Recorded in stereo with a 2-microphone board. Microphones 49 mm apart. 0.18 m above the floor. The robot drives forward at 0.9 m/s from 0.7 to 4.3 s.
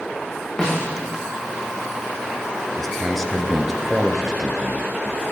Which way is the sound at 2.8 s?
5° left (ahead or behind).